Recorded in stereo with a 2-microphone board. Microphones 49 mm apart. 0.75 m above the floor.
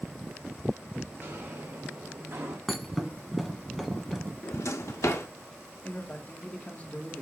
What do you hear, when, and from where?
1.2 s footsteps: 55° right (ahead or behind), 3 m; by 2.6 s 75° right (ahead or behind), 3 m
2.7 s a thud: 5° right (ahead or behind), 0.8 m
4.4 s a drawer: 70° left (ahead or behind), 0.6 m
5.8 s a man speaking: 30° left (ahead or behind), 1.2 m